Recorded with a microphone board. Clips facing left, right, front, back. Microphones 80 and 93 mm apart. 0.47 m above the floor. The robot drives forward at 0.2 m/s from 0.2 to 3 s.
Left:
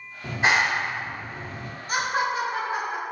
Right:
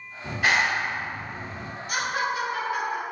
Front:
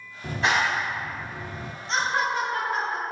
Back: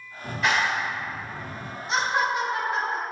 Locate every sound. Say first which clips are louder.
0.2 s a clap: left 1 dB, even; 35° left, 0.9 m; by 1.7 s 65° left, 0.7 m
1.9 s laughter: left 2 dB, back 1 dB; 105° left, 0.8 m; by 3.0 s 130° left, 0.9 m